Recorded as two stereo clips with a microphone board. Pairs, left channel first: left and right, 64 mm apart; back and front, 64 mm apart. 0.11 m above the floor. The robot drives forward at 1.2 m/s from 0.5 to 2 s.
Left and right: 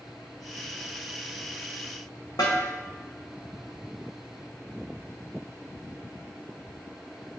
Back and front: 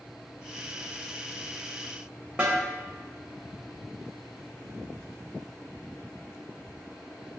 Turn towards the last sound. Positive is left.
turn(degrees=75)